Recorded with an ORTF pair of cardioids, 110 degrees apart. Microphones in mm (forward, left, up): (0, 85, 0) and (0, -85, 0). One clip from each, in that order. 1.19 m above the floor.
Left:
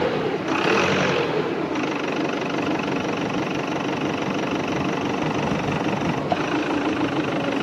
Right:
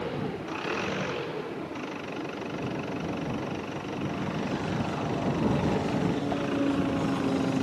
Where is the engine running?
65° left.